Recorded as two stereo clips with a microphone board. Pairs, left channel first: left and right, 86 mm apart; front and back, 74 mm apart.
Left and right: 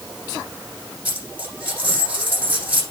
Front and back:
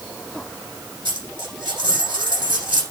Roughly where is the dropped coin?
Behind.